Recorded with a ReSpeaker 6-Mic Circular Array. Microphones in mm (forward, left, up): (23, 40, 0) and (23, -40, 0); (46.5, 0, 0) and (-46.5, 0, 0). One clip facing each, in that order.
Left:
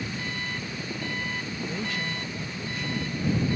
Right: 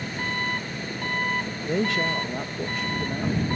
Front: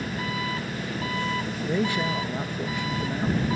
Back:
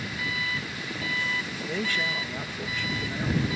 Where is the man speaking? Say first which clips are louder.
Right 10 dB, front 5 dB; 75° right.